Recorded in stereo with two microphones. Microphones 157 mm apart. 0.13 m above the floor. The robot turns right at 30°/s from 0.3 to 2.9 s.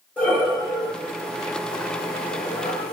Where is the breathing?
10° left (ahead or behind), 5.5 m; by 2.9 s 80° left, 5.5 m.